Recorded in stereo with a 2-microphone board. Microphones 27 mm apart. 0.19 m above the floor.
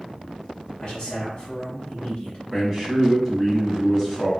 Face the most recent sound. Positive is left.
turn(degrees=-10)  # may be behind; listen again after turning